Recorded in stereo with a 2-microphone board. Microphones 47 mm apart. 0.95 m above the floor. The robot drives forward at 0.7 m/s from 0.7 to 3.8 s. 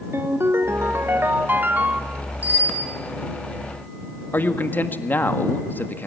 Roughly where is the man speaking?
Left.